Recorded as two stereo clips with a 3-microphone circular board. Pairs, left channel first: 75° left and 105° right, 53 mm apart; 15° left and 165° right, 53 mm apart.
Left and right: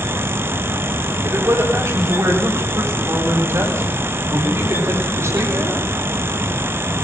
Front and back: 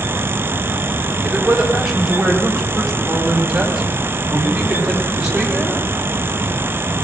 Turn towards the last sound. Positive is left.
turn(degrees=-90)